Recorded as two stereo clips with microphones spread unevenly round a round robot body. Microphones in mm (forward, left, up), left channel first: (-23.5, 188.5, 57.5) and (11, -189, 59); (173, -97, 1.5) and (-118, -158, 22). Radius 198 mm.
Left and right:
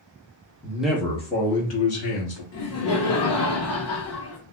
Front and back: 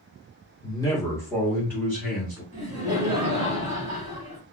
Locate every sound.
0.6 s a man speaking: 25° right, 0.8 m; by 2.4 s 95° left, 1.1 m
2.5 s laughter: 110° left, 0.9 m